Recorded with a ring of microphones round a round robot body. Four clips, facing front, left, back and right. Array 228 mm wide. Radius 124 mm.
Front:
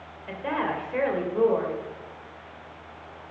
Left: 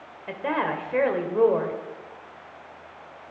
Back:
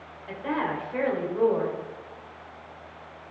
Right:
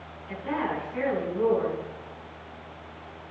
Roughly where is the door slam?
I don't hear a door slam.